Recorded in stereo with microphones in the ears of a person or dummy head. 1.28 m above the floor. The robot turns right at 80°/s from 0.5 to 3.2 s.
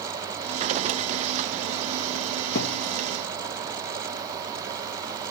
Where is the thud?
60° left (ahead or behind); by 2.8 s 40° left (ahead or behind).